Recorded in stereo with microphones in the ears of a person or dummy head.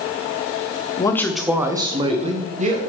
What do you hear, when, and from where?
1.0 s a man speaking: 20° left (ahead or behind), 0.6 m; by 2.8 s 35° right (ahead or behind), 1.3 m